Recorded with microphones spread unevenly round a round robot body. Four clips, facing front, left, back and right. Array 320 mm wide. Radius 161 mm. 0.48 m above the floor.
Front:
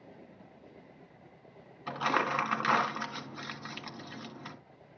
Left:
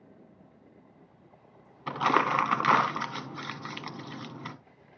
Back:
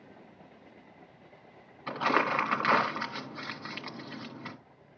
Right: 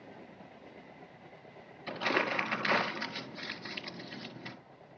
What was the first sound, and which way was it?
Crumpling, 115° left.